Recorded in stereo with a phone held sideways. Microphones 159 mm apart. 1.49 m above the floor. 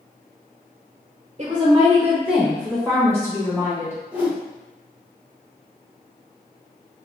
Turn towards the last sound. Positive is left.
turn(degrees=-10)  # may be behind; listen again after turning